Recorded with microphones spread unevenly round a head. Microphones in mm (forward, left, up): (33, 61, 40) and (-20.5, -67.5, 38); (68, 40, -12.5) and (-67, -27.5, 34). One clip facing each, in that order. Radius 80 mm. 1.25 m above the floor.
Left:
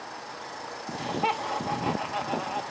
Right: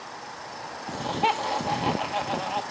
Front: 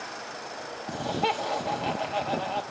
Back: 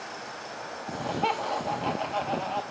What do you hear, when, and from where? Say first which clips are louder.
0.9 s laughter: right 3 dB, front 1 dB; 55° right, 2 m